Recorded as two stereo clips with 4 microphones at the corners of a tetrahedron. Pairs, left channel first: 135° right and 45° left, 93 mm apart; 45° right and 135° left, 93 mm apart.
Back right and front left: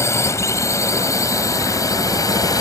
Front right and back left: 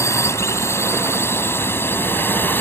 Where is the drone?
90° right; by 2.6 s 105° right.